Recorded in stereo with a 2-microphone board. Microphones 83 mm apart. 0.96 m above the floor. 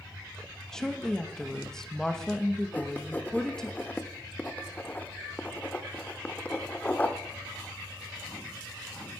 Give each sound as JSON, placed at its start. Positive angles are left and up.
{"t": 0.7, "sound": "a woman speaking", "side_deg": 5, "distance_m": 1.3}
{"t": 2.7, "sound": "writing", "side_deg": 20, "distance_m": 0.9}